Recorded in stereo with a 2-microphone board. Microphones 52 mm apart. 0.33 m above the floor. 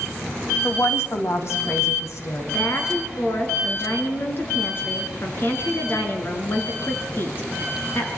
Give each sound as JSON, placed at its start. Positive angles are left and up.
{"t": 0.6, "sound": "a woman speaking", "side_deg": 50, "distance_m": 1.9}
{"t": 2.5, "sound": "a woman speaking", "side_deg": 45, "distance_m": 4.0}